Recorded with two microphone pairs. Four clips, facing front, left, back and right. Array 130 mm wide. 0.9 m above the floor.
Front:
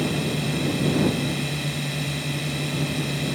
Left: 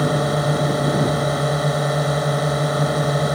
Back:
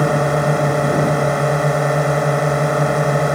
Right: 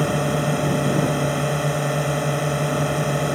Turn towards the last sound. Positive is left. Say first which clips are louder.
# left 2 dB, back 10 dB
turn(degrees=170)